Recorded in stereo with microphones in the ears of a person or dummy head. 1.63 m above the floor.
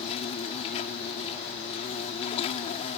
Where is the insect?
35° left (ahead or behind).